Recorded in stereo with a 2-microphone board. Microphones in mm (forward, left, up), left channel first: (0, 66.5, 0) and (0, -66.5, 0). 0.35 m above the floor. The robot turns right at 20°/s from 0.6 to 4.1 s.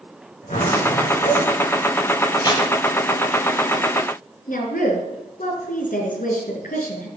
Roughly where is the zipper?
Left.